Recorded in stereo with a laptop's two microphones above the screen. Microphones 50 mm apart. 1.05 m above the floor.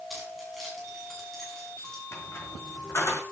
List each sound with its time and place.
0.1 s keys jangling: centre (ahead or behind), 6.5 m; by 2.0 s 10° left (ahead or behind), 7 m
2.1 s a squeak: 60° left (ahead or behind), 3.5 m